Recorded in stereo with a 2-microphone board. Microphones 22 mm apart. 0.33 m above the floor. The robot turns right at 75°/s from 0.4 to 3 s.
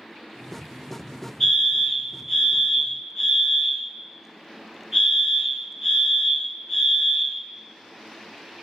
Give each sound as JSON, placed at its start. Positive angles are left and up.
{"t": 1.4, "sound": "a fire alarm", "side_deg": 15, "distance_m": 1.8}